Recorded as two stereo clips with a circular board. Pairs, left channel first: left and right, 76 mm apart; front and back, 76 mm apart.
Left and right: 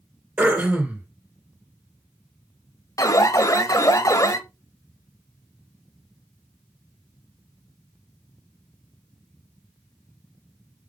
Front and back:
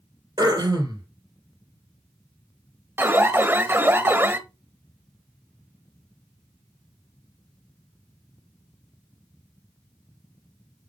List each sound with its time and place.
0.4 s throat clearing: 160° right, 3 m
3.0 s an alarm: 125° left, 1.1 m